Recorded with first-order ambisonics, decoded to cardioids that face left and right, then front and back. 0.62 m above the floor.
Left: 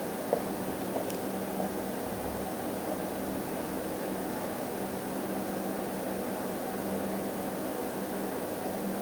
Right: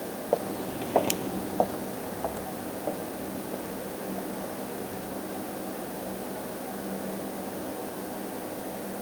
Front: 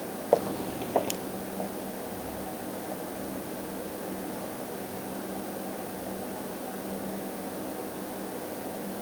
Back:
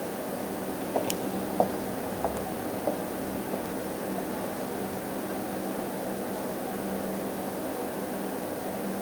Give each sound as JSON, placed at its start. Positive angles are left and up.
{"t": 0.3, "sound": "footsteps", "azimuth_deg": -10, "distance_m": 1.3}